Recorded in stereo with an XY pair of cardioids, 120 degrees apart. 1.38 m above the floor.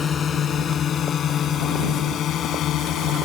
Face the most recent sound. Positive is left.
turn(degrees=70)